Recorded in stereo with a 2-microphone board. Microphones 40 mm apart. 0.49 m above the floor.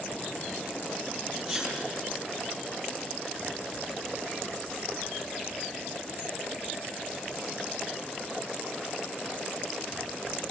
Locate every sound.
1.4 s a sneeze: centre (ahead or behind), 9 m